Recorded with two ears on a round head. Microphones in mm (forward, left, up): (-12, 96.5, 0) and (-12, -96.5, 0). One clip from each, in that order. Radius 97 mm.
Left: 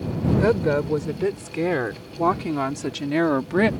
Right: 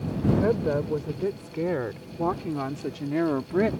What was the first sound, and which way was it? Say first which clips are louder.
A woman speaking: left 6 dB; 55° left (ahead or behind).